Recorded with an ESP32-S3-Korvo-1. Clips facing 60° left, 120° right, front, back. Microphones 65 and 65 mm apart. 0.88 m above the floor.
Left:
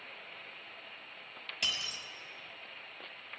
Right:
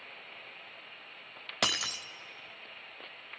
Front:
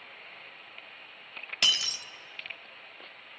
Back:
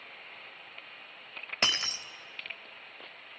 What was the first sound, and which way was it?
Breaking glass, 125° right.